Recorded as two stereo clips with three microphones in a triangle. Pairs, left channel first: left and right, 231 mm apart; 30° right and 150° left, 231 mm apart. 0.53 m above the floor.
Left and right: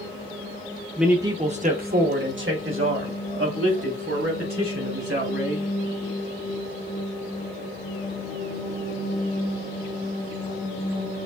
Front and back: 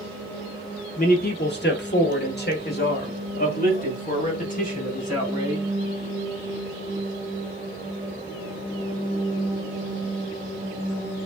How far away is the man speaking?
About 0.8 m.